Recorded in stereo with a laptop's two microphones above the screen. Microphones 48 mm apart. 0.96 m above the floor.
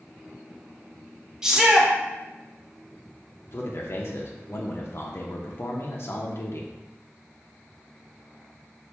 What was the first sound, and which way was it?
A shout, 10° right (ahead or behind).